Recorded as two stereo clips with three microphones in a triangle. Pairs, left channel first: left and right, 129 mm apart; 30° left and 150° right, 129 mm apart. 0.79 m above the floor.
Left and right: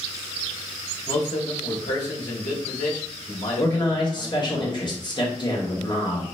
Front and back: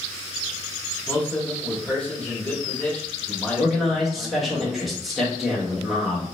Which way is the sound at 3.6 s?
120° left.